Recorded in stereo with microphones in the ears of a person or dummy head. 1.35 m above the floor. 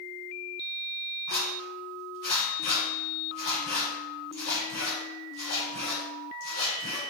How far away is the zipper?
About 1.7 m.